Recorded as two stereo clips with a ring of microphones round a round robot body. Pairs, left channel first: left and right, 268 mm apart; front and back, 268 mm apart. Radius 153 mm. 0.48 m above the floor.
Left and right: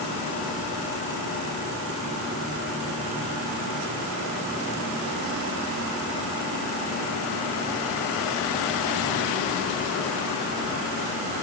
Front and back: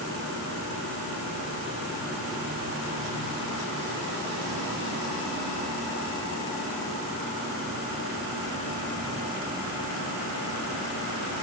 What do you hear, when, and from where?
Only background noise.